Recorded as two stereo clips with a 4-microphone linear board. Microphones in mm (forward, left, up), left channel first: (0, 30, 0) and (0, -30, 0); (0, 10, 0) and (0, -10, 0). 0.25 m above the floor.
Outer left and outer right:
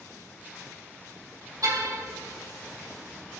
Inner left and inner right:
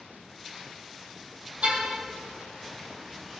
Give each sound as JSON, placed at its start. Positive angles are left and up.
{"t": 1.6, "sound": "a car horn", "side_deg": -75, "distance_m": 5.0}